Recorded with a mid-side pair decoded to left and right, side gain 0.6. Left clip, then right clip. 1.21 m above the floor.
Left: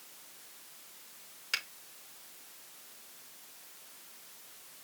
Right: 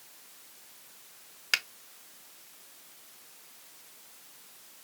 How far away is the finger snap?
About 0.8 m.